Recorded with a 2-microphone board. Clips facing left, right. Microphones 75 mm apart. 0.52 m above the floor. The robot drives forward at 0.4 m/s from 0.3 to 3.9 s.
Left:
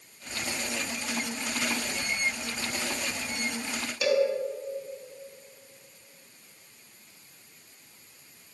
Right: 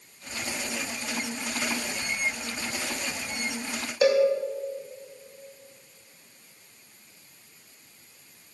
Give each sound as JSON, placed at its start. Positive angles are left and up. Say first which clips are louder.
{"t": 4.0, "sound": "a cowbell", "louder": "right 4 dB", "side_deg": -30, "distance_m": 1.6}